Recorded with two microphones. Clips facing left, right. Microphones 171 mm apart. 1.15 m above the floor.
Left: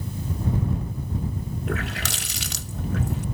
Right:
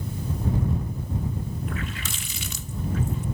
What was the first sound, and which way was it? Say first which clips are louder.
A running tap: left 4 dB; 80° left.